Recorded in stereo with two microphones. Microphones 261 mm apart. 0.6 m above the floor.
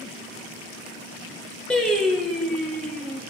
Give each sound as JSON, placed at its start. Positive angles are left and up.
{"t": 1.7, "sound": "singing", "side_deg": 5, "distance_m": 1.8}